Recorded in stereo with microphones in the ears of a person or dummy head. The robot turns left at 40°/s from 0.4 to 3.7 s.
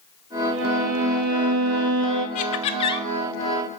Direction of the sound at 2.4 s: 40° left (ahead or behind).